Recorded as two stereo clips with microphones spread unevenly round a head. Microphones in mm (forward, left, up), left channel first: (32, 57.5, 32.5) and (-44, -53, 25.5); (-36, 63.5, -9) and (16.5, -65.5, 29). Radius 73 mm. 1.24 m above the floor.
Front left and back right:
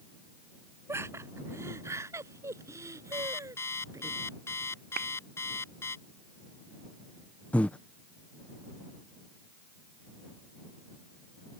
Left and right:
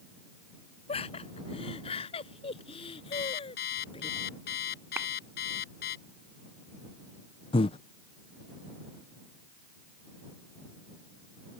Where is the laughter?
165° left.